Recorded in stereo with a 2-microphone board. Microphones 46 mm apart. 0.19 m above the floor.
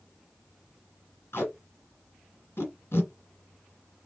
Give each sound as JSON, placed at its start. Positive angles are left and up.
{"t": 1.3, "sound": "tape being pulled", "side_deg": 55, "distance_m": 2.0}